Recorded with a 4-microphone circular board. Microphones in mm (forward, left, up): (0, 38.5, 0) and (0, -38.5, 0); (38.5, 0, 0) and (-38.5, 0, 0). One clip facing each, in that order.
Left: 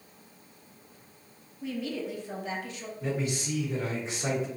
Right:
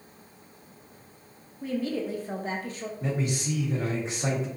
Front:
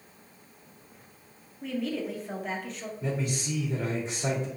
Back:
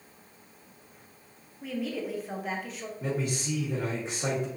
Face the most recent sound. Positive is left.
turn(degrees=-145)